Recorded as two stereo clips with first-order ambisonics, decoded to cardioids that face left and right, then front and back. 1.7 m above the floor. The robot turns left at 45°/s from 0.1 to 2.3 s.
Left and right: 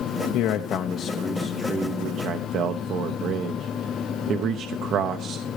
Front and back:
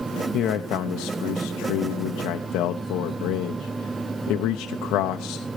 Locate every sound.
0.3 s a man speaking: 50° left, 0.9 m; by 5.5 s 40° right, 0.9 m